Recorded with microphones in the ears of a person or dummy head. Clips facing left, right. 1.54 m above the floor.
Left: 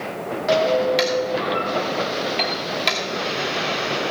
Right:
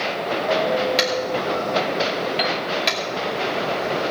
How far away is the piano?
About 1.3 m.